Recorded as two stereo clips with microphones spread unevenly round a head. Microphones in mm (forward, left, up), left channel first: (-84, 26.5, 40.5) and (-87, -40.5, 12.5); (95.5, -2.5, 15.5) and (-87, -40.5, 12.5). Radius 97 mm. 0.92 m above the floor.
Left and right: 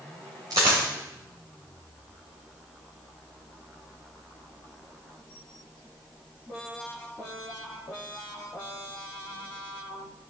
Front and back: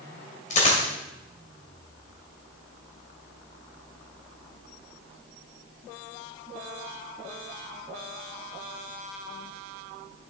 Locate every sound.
0.5 s a dropped coin: 35° right, 2.5 m